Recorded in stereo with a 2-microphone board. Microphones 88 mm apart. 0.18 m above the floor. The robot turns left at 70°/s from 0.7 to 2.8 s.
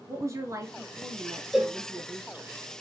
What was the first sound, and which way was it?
A woman speaking, 40° right.